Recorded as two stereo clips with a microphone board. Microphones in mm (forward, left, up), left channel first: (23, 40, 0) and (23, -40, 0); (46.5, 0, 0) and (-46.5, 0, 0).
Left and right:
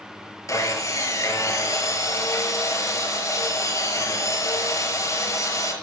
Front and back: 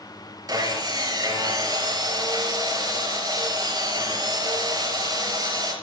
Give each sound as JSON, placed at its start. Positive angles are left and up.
{"t": 0.5, "sound": "sawing", "azimuth_deg": 135, "distance_m": 5.0}